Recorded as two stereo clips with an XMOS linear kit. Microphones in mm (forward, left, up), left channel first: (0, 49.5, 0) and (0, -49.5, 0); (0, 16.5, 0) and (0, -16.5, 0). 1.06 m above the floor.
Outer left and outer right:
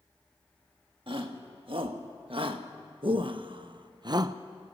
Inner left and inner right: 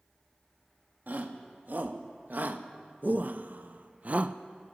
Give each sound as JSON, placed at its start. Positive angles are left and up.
{"t": 1.1, "sound": "a shout", "side_deg": -60, "distance_m": 2.0}